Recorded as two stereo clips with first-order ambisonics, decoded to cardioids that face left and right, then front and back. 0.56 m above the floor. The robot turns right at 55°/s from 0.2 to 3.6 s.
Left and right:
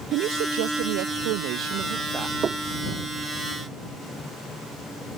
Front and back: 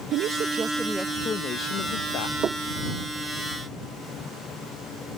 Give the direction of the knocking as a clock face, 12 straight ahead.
5 o'clock.